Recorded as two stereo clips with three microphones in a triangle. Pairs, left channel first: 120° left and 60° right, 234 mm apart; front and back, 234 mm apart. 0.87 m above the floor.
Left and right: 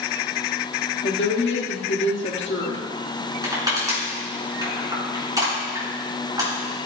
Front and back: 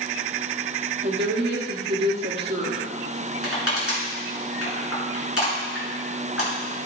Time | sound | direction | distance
1.0 | a woman speaking | 145° left | 1.6 m
3.4 | crushing | 15° left | 4.5 m